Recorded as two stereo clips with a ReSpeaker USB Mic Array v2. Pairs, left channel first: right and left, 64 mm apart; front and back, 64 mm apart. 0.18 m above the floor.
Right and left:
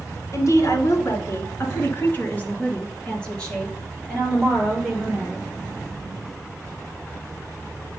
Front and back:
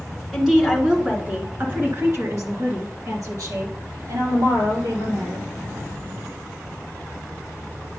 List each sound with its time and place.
0.3 s a woman speaking: 95° right, 1.8 m; by 5.5 s straight behind, 4 m